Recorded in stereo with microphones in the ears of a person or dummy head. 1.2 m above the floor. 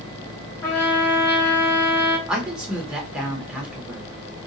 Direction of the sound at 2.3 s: 5° right (ahead or behind).